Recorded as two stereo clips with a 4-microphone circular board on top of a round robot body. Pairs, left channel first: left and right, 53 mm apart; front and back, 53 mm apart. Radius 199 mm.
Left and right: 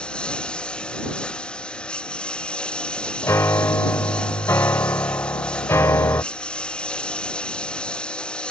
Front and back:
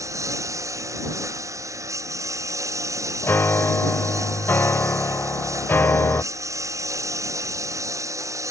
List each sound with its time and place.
0.0 s a lawn mower: 165° left
3.2 s a piano: 50° left